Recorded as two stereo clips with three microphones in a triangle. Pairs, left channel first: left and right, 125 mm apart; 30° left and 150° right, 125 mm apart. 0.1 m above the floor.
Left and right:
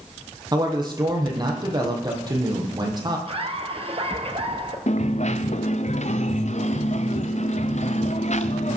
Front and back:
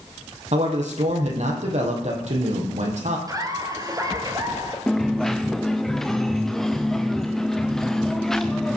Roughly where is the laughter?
Right.